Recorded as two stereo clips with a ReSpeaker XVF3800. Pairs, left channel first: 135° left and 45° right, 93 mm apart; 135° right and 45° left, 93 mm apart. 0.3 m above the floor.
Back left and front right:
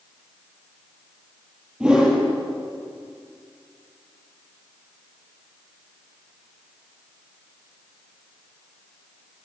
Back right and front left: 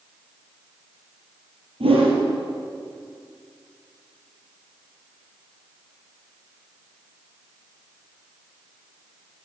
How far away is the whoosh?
About 4 m.